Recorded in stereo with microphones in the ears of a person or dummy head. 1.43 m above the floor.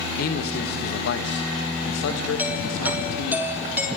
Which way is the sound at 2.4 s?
10° right (ahead or behind).